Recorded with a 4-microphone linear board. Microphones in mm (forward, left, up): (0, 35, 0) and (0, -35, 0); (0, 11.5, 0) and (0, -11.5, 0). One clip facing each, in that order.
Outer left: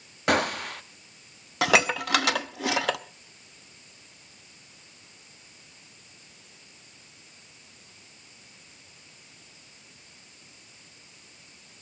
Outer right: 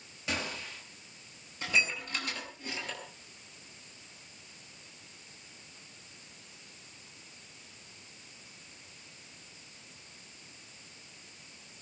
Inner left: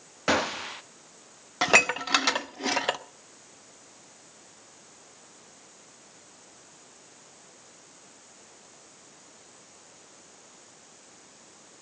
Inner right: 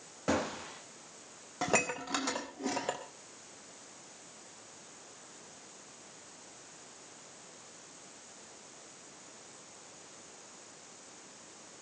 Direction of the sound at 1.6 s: 75° left (ahead or behind).